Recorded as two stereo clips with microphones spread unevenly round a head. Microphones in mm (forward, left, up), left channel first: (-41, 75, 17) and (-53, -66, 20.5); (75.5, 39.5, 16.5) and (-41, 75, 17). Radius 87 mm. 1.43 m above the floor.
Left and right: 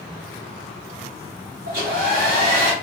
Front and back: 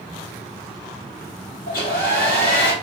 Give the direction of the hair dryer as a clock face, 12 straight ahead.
2 o'clock.